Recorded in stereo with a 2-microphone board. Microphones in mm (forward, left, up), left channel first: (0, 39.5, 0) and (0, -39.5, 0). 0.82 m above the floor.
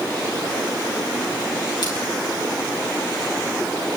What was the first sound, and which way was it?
A splash, 60° left (ahead or behind).